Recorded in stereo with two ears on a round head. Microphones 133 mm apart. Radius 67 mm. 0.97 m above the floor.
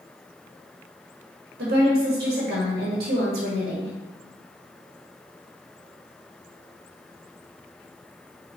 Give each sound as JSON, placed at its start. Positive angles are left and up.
{"t": 1.6, "sound": "a woman speaking", "side_deg": -70, "distance_m": 1.4}